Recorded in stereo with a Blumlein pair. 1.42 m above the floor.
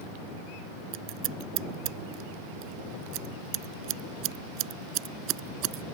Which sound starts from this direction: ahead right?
Scissors, at 0.9 s.